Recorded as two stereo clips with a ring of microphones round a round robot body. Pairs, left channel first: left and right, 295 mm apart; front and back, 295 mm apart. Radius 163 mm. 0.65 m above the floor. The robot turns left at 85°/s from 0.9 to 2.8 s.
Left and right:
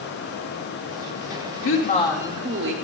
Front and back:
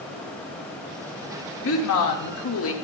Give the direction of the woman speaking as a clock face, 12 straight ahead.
10 o'clock.